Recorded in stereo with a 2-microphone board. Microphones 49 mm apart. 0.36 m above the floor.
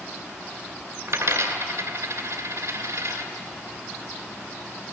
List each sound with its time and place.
1.1 s a dropped coin: 75° right (ahead or behind), 2.5 m